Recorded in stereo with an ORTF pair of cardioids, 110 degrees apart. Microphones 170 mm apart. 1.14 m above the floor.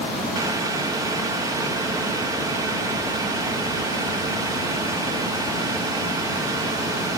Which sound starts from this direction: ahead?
Boiling, at 0.3 s.